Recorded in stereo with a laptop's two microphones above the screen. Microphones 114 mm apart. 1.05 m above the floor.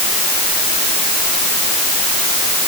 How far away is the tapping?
I don't hear tapping.